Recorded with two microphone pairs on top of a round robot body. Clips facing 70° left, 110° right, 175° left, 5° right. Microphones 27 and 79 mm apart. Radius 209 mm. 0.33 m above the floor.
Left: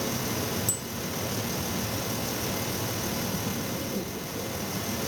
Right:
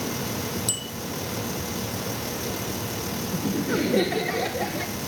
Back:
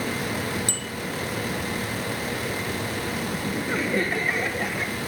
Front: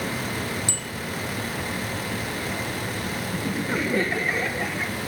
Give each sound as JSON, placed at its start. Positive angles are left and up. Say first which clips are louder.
{"t": 0.7, "sound": "a bicycle bell", "louder": "right 3 dB, back 1 dB", "azimuth_deg": -145}
{"t": 3.3, "sound": "laughter", "louder": "right 6 dB, front 3 dB", "azimuth_deg": -95}